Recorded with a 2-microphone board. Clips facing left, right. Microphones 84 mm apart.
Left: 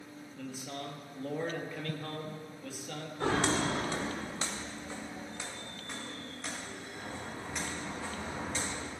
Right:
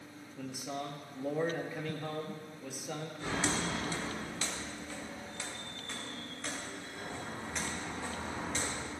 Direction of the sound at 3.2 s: 75° left (ahead or behind).